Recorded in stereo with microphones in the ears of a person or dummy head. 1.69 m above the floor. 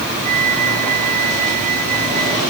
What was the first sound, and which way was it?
A flute, 45° right (ahead or behind).